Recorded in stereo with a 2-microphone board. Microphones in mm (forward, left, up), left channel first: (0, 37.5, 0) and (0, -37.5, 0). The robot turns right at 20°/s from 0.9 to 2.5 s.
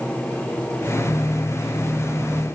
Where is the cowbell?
No cowbell in this recording.